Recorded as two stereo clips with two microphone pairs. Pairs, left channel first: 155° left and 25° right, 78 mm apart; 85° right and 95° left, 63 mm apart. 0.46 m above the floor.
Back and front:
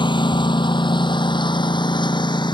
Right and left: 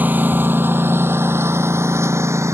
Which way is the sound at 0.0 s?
155° left.